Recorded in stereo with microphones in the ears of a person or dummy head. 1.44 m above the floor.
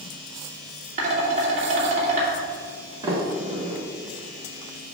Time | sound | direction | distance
1.0 | dishes clattering | 40° right (ahead or behind) | 2.5 m
3.0 | a sliding door | 25° right (ahead or behind) | 1.6 m